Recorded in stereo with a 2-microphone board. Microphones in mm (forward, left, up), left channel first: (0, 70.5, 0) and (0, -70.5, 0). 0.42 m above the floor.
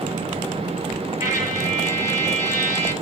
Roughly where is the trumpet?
Right.